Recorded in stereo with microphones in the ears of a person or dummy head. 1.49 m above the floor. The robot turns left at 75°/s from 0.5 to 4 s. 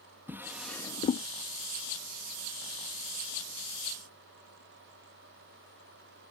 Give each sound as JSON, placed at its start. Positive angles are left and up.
{"t": 0.3, "sound": "a drawer", "side_deg": -10}